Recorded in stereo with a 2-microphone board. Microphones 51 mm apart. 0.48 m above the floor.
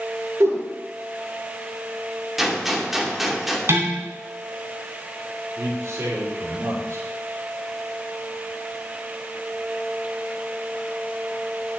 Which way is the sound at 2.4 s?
5° right (ahead or behind).